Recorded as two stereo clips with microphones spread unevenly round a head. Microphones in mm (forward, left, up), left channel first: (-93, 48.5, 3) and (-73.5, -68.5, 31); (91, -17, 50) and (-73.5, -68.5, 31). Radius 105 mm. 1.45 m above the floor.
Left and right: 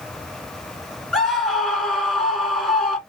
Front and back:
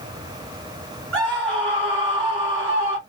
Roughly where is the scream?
Behind.